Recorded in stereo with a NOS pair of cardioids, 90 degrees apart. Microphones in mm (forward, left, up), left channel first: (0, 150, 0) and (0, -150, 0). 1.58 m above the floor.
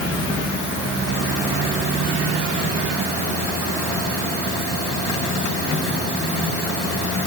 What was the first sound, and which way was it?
Only background noise.